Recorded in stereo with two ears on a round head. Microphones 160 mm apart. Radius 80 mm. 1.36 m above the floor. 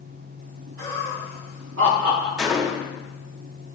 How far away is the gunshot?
About 0.8 m.